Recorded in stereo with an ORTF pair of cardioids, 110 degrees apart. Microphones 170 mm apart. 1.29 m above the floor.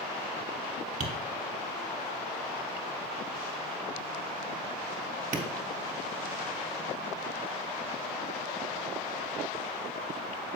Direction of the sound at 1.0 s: 45° right.